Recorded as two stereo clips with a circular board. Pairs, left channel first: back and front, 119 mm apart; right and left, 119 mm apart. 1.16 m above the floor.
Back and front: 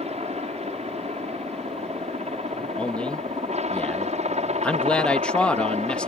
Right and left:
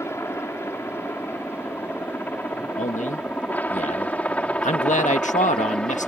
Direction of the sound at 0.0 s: 20° right.